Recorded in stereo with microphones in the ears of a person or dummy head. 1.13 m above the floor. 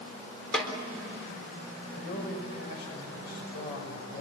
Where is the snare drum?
5° right (ahead or behind), 4 m.